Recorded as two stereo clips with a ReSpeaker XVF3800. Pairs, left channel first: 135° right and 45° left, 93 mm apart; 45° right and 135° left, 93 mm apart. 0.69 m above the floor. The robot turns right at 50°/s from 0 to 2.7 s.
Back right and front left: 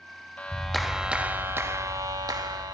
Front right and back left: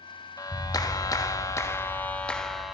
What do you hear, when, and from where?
0.4 s a clap: 65° right, 0.9 m; by 2.8 s 50° left, 0.9 m